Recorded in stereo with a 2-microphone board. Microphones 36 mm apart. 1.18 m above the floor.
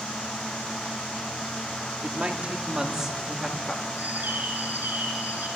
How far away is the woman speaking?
About 2.5 m.